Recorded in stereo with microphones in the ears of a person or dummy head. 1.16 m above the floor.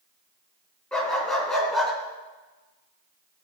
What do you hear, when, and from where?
0.9 s a dog barking: 10° left (ahead or behind), 3.5 m; by 1.9 s 5° left (ahead or behind), 3 m